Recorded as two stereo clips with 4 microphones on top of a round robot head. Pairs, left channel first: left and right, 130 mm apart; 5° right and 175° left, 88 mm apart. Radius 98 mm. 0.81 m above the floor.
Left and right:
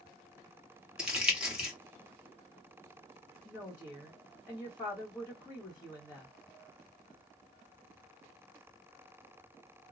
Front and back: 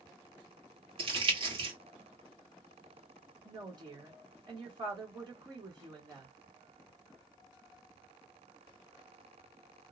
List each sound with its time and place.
1.0 s crumpling: 175° right, 1.5 m
3.5 s a woman speaking: 165° left, 1.4 m